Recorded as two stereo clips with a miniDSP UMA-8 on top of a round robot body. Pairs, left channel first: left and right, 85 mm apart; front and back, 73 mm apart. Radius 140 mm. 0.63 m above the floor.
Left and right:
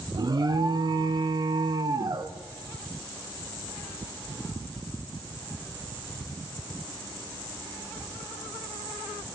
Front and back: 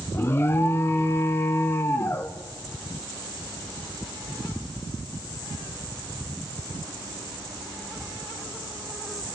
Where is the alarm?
55° right, 1.0 m.